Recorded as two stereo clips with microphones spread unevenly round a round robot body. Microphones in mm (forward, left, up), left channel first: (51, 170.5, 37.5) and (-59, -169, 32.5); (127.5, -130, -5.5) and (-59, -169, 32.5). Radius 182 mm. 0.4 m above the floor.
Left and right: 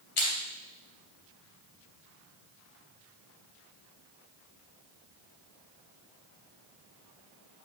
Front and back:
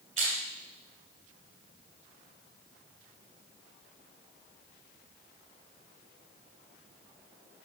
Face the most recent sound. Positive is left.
turn(degrees=100)